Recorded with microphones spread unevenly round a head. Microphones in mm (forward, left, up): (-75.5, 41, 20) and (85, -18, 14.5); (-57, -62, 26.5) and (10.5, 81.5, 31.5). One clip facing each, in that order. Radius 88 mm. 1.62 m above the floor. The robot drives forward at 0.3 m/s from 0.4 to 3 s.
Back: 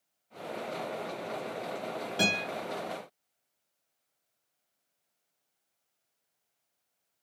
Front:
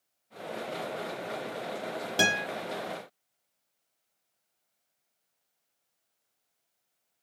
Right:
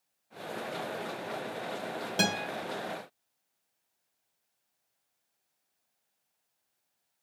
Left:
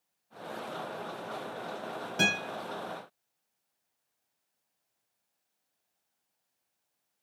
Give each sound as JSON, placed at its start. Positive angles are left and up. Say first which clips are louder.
{"t": 2.2, "sound": "a guitar", "louder": "front 2 dB, right 1 dB", "azimuth_deg": -60, "distance_m": 0.9}